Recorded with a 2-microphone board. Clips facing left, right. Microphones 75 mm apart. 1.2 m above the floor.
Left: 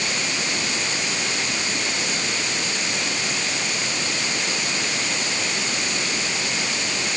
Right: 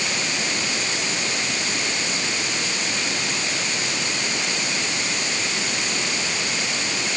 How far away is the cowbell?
No cowbell in this recording.